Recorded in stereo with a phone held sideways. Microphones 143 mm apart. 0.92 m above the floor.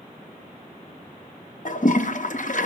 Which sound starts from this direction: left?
A toilet flushing, at 1.6 s.